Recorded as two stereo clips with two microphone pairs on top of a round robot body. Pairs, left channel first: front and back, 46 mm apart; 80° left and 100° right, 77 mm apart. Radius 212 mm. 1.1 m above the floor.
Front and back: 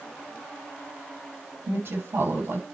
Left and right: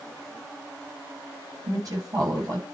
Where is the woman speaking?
140° right, 9 m.